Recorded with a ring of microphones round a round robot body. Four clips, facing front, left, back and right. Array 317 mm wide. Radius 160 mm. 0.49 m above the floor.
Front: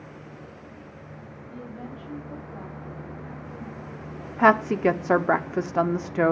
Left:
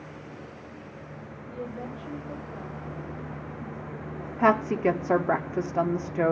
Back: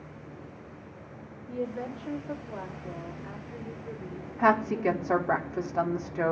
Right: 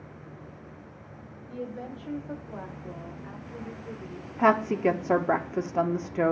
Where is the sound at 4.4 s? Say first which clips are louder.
Even, front 5 dB; straight ahead, 0.8 m.